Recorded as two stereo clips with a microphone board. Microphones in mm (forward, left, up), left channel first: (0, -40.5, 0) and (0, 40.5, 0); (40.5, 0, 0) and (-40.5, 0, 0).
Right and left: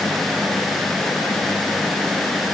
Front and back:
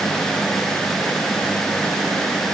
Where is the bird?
I don't hear a bird.